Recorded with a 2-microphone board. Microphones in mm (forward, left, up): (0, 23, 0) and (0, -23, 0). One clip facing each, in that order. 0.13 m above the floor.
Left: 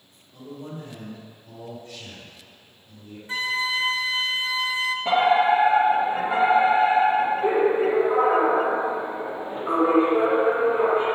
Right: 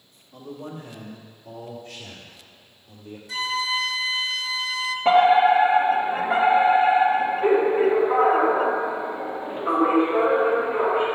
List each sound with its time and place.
0.3 s a man speaking: 40° right (ahead or behind), 4 m; by 3.2 s 60° right (ahead or behind), 3 m
3.3 s a flute: 30° left (ahead or behind), 0.6 m
5.0 s a fire alarm: 35° right (ahead or behind), 4 m